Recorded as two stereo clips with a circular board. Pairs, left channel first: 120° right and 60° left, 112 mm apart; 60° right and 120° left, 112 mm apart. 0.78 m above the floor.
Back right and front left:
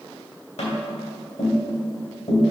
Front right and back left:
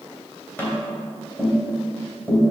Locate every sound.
0.6 s tapping: 135° right, 2.5 m